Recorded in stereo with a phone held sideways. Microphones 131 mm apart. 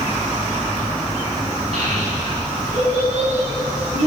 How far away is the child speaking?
About 6 m.